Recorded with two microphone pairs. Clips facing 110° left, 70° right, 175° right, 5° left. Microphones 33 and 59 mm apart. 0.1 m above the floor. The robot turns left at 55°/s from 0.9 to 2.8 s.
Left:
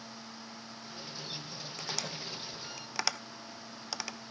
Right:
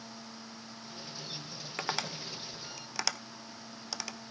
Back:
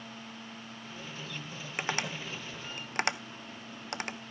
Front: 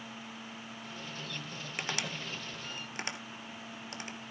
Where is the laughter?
I don't hear laughter.